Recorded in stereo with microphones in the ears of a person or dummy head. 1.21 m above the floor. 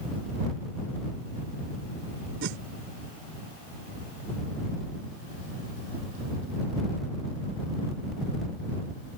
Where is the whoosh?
65° right (ahead or behind).